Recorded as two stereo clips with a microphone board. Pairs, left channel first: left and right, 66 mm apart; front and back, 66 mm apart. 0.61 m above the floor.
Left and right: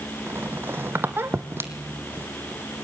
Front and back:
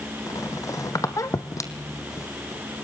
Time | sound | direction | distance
0.3 | a squeak | 35° right | 1.6 m